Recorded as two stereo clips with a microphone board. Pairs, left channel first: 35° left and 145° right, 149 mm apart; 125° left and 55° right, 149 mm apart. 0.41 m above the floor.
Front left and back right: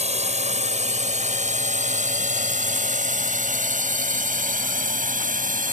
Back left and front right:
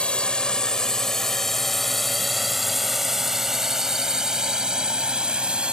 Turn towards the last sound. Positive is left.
turn(degrees=-140)